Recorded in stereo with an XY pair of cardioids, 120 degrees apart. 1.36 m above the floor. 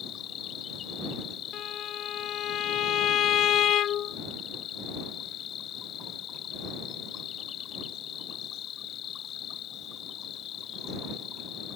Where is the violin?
60° left.